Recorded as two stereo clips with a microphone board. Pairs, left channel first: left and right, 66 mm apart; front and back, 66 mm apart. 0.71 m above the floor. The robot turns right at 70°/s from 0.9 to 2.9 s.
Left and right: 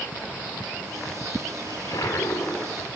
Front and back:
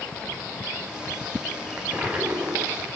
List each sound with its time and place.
1.7 s a toilet flushing: 90° left, 3 m; by 2.9 s 175° left, 3 m